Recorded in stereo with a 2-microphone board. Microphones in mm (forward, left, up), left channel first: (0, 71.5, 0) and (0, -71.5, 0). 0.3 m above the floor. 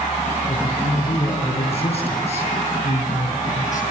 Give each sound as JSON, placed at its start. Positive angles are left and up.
{"t": 0.5, "sound": "a man speaking", "side_deg": 35, "distance_m": 6.0}